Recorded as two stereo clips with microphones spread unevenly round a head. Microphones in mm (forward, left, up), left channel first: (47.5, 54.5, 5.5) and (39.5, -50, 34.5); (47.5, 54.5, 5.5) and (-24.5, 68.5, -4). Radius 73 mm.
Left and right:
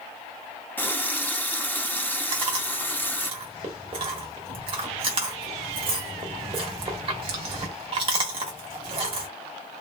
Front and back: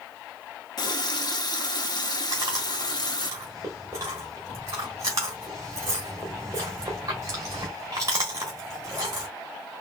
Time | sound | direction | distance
0.8 | a running tap | 10° left | 0.8 m
2.3 | chewing | 125° right | 1.3 m